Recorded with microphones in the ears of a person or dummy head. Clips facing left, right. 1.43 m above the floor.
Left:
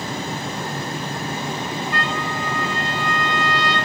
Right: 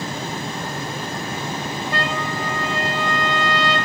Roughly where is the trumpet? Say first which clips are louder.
Right 1 dB; right.